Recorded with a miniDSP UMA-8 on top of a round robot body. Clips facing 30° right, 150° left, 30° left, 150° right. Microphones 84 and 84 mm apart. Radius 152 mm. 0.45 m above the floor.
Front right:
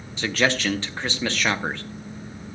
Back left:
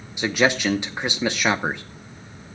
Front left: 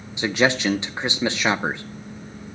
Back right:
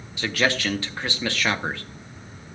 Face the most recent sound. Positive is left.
turn(degrees=85)